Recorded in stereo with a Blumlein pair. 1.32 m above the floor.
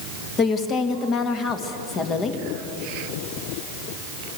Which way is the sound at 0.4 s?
25° left.